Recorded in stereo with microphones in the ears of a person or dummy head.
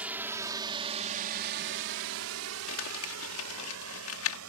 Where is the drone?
5° right (ahead or behind); by 4.5 s 70° right (ahead or behind).